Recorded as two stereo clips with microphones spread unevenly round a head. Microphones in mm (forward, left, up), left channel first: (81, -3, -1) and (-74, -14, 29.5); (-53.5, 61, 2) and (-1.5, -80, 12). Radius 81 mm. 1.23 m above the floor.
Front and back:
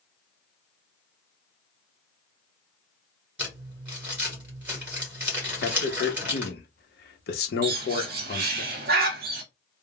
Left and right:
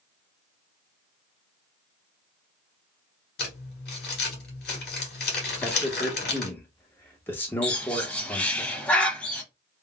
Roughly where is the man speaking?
Ahead left.